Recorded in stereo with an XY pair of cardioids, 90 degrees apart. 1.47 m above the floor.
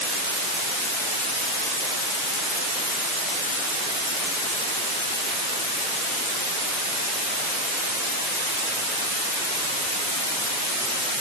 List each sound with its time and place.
Only background noise.